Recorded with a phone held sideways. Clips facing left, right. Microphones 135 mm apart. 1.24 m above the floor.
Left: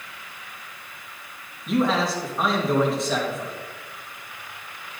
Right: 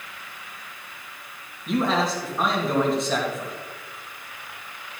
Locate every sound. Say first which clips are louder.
1.7 s a man speaking: left 1 dB; centre (ahead or behind), 2 m